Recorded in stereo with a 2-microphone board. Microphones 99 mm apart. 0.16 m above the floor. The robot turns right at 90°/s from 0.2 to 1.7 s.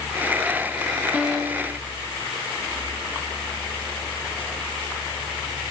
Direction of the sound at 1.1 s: Straight behind.